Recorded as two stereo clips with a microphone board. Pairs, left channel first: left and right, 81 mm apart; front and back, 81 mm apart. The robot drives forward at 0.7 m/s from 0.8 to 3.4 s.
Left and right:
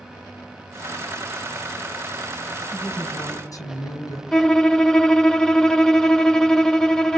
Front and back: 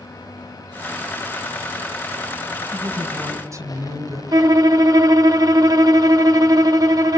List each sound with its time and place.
2.7 s a woman speaking: 125° left, 4 m; by 4.2 s 130° left, 4.5 m
4.3 s a violin: 170° left, 0.6 m